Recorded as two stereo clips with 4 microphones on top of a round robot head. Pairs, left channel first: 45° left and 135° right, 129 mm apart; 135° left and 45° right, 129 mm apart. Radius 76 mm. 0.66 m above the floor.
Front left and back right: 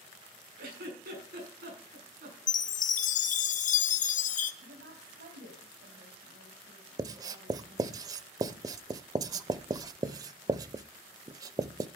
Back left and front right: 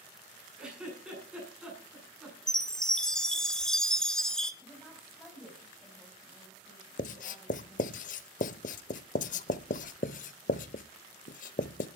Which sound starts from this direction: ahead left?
A chime, at 2.5 s.